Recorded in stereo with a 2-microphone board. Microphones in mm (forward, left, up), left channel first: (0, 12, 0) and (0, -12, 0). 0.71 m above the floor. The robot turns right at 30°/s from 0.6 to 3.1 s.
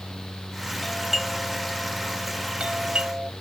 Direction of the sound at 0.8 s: 5° left (ahead or behind).